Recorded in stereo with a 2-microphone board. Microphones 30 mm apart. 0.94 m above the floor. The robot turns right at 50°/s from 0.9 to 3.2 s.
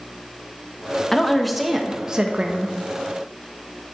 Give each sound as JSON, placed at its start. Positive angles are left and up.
{"t": 1.1, "sound": "a woman speaking", "azimuth_deg": 160, "distance_m": 1.2}